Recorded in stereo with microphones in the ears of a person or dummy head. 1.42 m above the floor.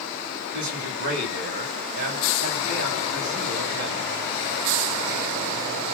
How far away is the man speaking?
About 9 m.